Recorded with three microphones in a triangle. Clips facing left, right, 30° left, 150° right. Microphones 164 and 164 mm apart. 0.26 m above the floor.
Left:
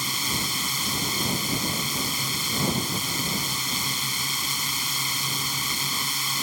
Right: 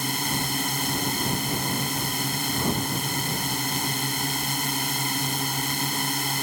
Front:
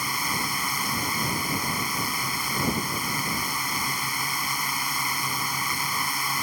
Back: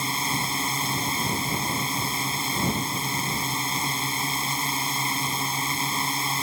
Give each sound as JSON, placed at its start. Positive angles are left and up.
{"t": 0.0, "sound": "a drone", "azimuth_deg": -90}